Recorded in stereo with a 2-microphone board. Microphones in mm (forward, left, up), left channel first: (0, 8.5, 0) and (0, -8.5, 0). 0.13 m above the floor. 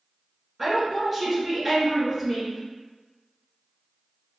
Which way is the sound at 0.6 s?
5° right (ahead or behind).